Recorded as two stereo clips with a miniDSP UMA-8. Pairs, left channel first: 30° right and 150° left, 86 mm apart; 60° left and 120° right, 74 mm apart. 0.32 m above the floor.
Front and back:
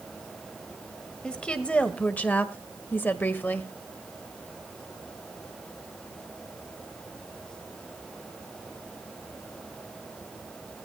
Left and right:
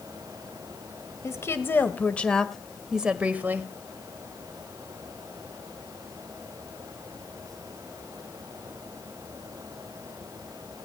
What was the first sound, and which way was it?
A woman speaking, 45° left.